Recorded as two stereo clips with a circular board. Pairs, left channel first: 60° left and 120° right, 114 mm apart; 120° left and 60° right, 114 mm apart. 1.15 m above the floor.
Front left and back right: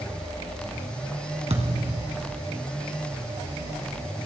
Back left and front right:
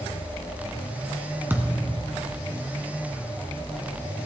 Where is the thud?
130° right, 2 m.